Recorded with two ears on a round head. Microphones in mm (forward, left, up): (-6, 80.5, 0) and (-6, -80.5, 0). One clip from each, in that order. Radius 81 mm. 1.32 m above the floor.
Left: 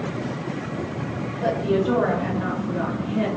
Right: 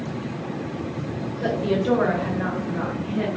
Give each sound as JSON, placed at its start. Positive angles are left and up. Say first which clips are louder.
{"t": 1.4, "sound": "a woman speaking", "louder": "left 2 dB", "side_deg": -80, "distance_m": 1.6}